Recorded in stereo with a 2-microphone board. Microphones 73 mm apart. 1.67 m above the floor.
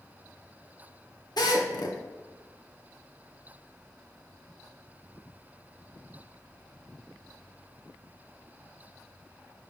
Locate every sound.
1.4 s a drill: 75° left (ahead or behind), 2 m